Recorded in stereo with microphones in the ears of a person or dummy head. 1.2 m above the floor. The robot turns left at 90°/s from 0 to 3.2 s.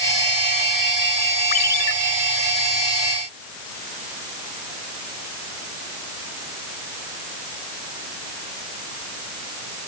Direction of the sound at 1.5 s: 140° left.